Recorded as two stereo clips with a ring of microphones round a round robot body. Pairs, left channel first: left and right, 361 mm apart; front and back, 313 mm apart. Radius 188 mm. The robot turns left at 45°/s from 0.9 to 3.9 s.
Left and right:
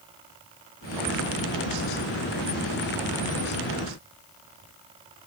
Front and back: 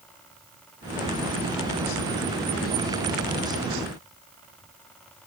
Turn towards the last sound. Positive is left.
No sound to turn to.